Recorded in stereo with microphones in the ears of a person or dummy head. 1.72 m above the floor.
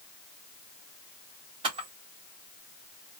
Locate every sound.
1.6 s a camera shutter: 40° right (ahead or behind), 1.5 m